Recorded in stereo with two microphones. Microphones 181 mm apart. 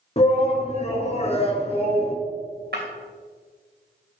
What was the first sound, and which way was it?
A shout, 35° left (ahead or behind).